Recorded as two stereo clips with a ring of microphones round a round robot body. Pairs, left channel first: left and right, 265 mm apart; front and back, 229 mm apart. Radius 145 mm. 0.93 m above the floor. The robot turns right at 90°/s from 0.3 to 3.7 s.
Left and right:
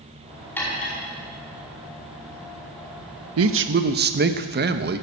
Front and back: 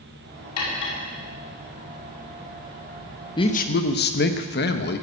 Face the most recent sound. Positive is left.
turn(degrees=-40)